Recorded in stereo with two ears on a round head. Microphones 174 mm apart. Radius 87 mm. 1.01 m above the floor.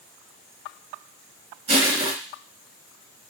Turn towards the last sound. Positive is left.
turn(degrees=-40)  # may be behind; listen again after turning